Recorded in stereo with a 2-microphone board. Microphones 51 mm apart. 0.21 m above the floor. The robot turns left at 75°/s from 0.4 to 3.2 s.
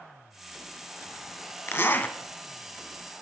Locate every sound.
1.7 s a zipper: 85° left, 0.7 m; by 2.2 s 50° left, 0.7 m